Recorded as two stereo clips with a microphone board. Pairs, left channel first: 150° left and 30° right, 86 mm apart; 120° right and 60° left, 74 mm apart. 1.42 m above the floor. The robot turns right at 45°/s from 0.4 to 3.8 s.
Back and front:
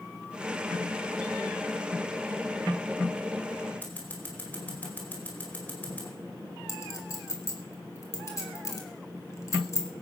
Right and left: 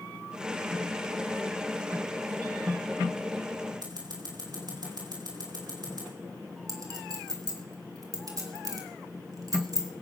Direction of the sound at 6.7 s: 95° left.